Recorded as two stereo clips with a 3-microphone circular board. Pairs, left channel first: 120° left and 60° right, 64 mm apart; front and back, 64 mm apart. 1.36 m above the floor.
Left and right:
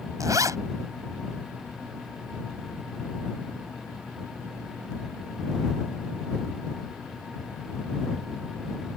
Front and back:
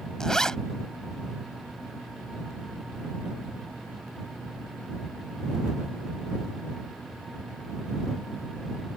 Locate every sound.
0.2 s a zipper: 80° right